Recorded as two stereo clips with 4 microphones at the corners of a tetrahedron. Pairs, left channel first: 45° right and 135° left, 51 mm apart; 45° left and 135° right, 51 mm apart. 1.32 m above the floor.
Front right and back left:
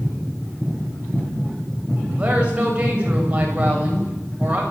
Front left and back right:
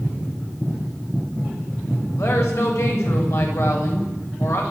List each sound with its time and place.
2.1 s a woman speaking: 70° left, 7.5 m